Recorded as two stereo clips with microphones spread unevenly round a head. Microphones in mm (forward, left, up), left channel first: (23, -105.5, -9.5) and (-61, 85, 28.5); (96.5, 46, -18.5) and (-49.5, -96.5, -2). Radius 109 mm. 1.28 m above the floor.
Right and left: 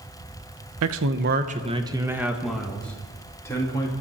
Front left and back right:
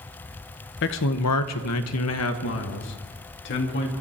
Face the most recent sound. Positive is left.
turn(degrees=10)